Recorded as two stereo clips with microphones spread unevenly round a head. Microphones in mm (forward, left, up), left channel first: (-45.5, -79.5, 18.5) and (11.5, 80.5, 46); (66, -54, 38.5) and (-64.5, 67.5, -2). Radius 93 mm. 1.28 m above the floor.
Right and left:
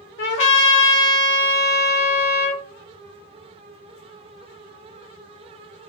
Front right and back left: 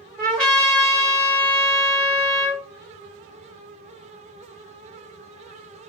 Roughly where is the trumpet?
Behind right.